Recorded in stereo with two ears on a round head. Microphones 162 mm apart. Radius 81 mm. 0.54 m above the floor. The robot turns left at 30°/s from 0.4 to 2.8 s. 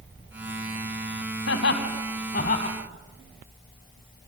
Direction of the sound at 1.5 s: 75° left (ahead or behind).